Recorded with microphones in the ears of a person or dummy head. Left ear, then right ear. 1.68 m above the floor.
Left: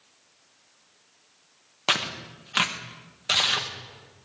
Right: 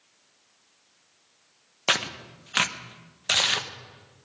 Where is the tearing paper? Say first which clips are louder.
Even; 15° right (ahead or behind), 0.9 m.